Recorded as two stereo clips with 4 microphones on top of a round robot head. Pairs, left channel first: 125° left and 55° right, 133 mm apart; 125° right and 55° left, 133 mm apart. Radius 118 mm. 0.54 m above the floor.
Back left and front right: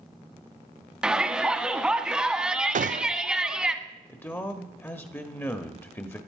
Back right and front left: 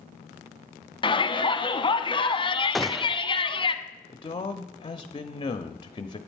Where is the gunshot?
35° right, 0.5 m.